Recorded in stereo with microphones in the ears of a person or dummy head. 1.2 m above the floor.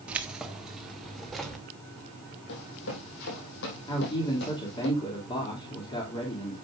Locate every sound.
0.1 s keys jangling: 5° right (ahead or behind), 1.3 m; by 1.6 s 5° left (ahead or behind), 2.5 m
2.5 s running footsteps: 70° left (ahead or behind), 4 m; by 4.9 s 65° left (ahead or behind), 4.5 m
3.9 s a man speaking: 25° left (ahead or behind), 2.5 m